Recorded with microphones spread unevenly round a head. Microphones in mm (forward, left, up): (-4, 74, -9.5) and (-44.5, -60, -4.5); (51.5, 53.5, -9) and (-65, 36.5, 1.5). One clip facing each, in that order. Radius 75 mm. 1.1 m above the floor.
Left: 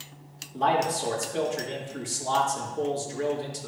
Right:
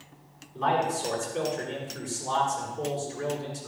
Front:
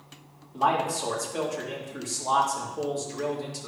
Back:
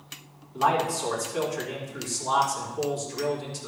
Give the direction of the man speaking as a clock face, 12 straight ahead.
10 o'clock.